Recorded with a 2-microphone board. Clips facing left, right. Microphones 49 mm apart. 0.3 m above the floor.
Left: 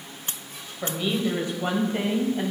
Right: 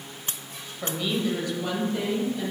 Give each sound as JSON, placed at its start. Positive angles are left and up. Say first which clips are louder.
{"t": 0.8, "sound": "a woman speaking", "louder": "left 1 dB", "side_deg": 10, "distance_m": 1.1}